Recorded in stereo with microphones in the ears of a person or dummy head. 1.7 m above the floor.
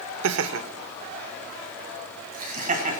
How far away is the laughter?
About 0.7 m.